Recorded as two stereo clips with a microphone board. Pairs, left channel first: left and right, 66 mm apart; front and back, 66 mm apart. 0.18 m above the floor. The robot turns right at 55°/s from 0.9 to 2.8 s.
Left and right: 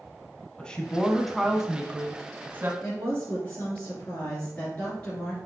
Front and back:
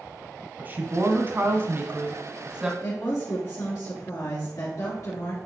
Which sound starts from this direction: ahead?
A woman speaking, at 2.8 s.